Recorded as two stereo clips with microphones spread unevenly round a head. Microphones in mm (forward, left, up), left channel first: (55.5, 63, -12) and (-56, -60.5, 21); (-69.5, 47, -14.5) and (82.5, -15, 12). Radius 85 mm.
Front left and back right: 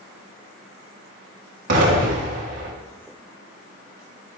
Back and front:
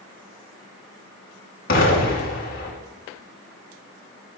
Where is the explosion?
160° right, 4.5 m.